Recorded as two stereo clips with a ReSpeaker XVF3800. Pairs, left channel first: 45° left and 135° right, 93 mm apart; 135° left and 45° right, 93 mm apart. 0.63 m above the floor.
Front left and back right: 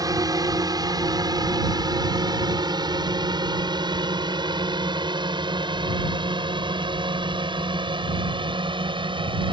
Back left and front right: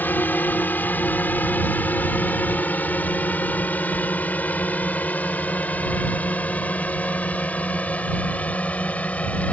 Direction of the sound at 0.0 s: 160° right.